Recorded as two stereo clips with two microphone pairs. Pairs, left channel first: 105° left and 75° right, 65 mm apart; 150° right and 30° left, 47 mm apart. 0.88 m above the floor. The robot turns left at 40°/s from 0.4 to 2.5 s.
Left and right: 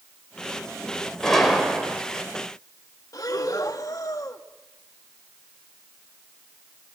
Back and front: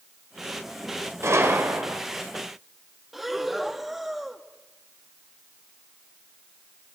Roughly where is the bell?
No bell in this recording.